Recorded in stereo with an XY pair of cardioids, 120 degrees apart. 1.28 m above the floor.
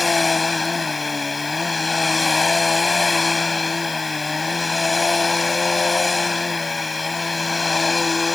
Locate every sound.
0.0 s a machine running: 20° left